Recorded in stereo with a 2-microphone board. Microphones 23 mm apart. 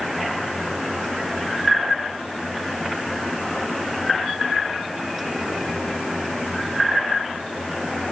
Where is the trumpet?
No trumpet in this recording.